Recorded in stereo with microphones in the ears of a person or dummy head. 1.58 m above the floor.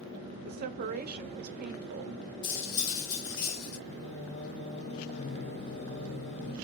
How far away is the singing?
About 0.9 m.